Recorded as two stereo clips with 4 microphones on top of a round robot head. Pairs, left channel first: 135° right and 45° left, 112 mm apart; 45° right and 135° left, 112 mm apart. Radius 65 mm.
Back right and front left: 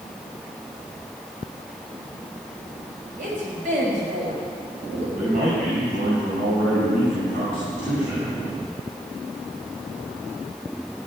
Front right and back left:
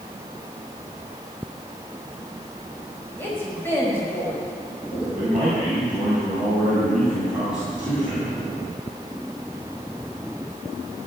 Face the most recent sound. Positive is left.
turn(degrees=50)